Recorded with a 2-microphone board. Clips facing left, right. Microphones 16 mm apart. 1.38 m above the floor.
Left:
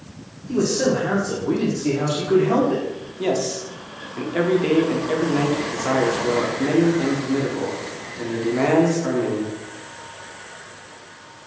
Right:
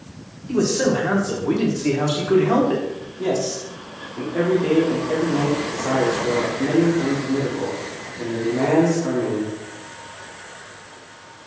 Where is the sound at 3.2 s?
50° left (ahead or behind), 0.8 m.